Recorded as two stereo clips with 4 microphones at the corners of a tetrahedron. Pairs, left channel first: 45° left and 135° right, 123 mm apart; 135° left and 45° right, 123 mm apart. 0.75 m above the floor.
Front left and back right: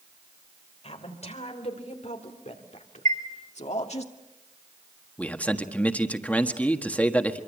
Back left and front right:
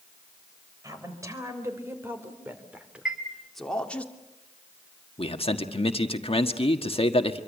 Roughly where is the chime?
Behind right.